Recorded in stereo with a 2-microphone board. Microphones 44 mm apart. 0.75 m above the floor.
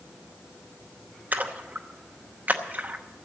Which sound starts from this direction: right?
A splash, at 1.3 s.